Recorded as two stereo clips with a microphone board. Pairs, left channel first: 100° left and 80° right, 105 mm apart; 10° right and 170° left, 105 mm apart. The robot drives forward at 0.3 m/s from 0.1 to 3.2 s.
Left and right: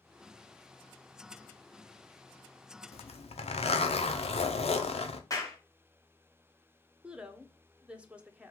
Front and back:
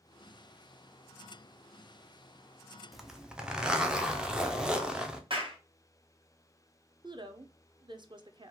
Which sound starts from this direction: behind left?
A clap, at 5.3 s.